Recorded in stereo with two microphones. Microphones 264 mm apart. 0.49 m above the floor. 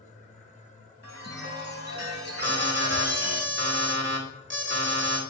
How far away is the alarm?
About 2.5 m.